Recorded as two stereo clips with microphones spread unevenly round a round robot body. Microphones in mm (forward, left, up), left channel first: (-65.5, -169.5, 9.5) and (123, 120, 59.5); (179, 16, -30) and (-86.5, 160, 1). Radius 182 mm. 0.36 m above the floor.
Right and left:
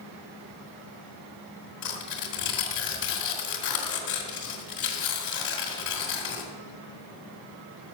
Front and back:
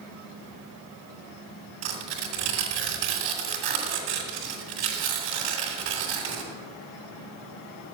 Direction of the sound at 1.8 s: Straight behind.